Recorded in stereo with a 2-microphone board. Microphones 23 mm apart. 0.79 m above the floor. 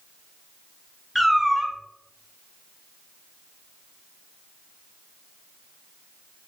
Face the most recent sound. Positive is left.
turn(degrees=-5)  # may be behind; listen again after turning